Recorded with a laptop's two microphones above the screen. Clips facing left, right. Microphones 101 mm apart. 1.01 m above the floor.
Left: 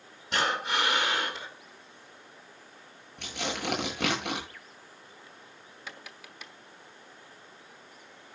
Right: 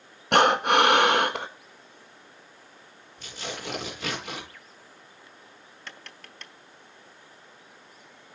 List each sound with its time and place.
0.3 s breathing: 65° right (ahead or behind), 1.7 m
3.2 s tearing paper: 70° left (ahead or behind), 8.5 m
5.9 s tapping: 10° left (ahead or behind), 0.8 m